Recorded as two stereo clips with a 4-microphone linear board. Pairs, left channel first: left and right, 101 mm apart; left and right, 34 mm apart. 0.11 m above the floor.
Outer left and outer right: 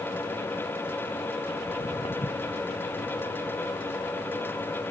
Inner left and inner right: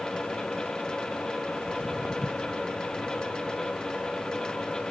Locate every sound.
1.6 s footsteps: 55° left (ahead or behind); by 4.9 s 80° left